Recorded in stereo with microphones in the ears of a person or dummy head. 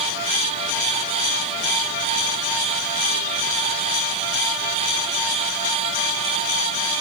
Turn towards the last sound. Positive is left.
No sound to turn to.